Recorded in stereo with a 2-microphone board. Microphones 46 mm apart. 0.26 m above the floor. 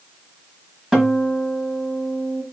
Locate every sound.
0.9 s a guitar: 10° right (ahead or behind), 1.3 m